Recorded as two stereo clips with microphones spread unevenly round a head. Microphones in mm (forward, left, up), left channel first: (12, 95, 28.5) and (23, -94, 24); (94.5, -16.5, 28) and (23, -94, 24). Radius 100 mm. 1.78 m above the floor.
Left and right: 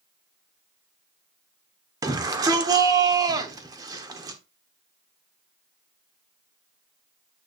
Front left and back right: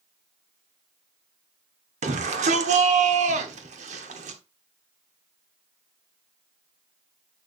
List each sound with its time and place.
2.0 s a shout: 160° right, 1.1 m